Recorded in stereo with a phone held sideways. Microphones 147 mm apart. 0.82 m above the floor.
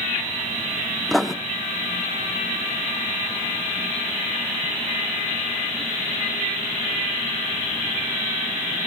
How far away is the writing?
About 0.7 m.